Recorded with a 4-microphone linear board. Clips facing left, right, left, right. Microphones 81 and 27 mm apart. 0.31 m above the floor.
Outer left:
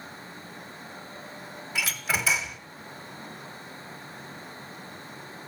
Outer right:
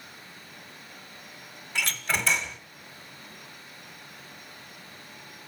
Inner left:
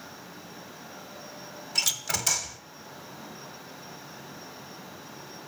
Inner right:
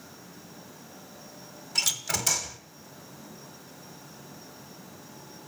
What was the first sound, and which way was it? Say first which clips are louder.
A door slam: even, even; 5° left (ahead or behind).